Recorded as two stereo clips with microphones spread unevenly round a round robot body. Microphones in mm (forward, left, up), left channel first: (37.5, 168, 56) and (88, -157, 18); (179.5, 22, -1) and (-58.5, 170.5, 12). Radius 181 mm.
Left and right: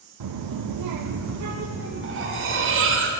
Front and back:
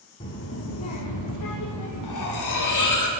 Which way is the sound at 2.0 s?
30° right.